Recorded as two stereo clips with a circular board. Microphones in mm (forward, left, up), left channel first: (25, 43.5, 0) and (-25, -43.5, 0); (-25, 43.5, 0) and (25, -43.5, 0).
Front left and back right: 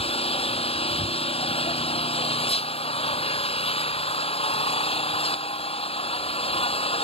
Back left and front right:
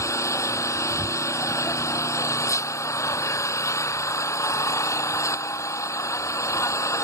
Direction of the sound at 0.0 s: 60° left.